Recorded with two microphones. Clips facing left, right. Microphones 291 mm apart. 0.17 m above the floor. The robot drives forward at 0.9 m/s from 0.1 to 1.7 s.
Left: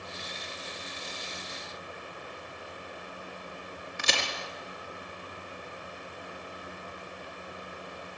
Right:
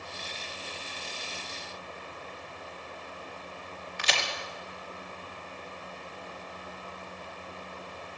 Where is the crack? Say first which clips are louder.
Left 1 dB; 50° left (ahead or behind), 4 m.